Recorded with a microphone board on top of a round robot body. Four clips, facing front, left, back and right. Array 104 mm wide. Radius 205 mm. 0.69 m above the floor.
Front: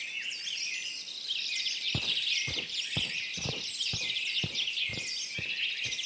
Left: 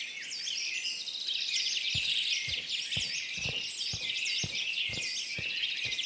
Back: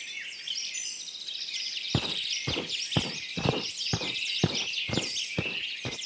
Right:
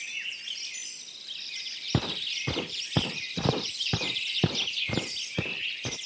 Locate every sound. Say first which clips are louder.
1.9 s footsteps: right 15 dB, back 7 dB; 120° right; by 6.0 s 135° right